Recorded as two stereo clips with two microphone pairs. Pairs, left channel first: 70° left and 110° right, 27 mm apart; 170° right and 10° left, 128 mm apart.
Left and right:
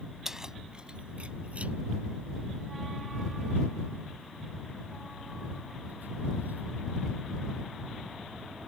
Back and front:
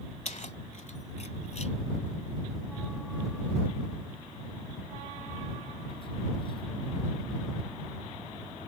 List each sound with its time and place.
0.2 s keys jangling: straight behind; by 6.7 s 120° right